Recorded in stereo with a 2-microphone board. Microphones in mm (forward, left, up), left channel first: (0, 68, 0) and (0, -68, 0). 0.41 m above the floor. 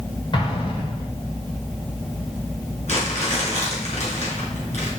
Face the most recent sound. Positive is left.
turn(degrees=55)  # may be behind; listen again after turning